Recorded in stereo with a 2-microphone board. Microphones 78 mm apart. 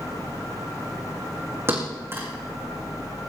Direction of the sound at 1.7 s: 35° right (ahead or behind).